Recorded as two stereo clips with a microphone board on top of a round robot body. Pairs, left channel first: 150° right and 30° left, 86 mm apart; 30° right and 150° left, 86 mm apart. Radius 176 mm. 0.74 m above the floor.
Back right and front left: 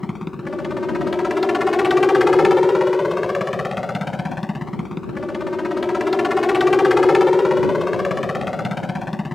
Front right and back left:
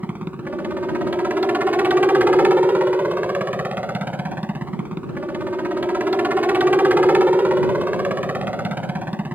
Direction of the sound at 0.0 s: 120° left.